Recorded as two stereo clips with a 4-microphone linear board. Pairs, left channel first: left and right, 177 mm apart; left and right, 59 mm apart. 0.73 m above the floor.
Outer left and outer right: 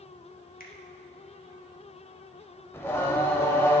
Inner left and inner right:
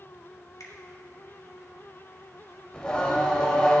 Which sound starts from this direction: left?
A finger snap, at 0.6 s.